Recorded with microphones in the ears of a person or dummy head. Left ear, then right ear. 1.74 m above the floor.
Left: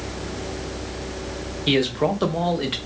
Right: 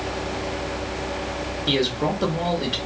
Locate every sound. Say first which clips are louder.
1.7 s a man speaking: left 2 dB; 35° left (ahead or behind), 0.7 m